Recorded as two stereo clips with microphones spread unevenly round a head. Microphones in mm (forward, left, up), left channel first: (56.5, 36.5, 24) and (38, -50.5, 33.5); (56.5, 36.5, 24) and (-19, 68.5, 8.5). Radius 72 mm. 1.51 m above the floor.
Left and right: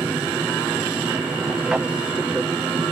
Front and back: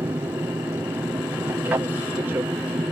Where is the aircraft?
Straight behind.